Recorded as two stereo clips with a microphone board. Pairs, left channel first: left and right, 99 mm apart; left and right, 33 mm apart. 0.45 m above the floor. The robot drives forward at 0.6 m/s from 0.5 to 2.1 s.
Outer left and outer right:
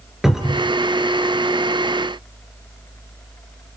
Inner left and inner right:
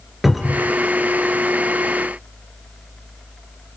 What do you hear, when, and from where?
0.2 s a cupboard door: 5° right (ahead or behind), 3 m